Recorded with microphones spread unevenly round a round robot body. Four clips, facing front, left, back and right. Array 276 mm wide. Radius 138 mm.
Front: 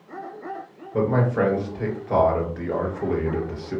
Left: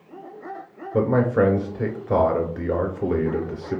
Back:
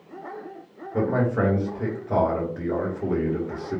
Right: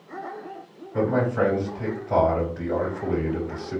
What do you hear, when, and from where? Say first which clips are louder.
0.9 s a man speaking: left 3 dB, front 2 dB; 90° left, 2.5 m